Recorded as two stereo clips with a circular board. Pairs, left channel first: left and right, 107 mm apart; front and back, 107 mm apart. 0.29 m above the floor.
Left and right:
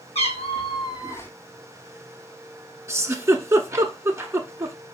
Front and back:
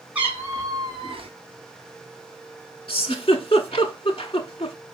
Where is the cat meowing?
105° left, 1.1 m; by 1.3 s 160° left, 0.9 m.